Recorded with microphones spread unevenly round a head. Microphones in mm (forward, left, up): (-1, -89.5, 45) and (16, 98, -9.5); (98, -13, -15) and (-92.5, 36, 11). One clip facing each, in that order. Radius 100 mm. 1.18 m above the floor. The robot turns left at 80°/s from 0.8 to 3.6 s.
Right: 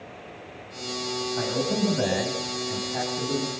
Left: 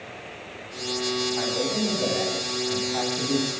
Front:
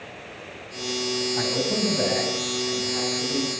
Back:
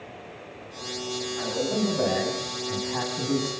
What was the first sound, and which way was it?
A man speaking, 40° right.